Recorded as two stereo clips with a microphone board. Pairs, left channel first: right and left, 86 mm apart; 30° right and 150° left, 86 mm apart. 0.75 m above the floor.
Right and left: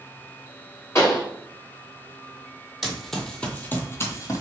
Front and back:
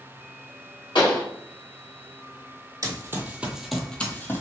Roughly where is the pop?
Ahead right.